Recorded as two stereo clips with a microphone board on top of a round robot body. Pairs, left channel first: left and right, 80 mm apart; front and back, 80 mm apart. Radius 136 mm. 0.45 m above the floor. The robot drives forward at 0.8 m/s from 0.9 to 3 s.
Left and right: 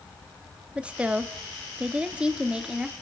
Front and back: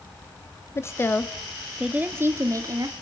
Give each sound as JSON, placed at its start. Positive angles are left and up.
{"t": 0.8, "sound": "a woman speaking", "azimuth_deg": -20, "distance_m": 1.1}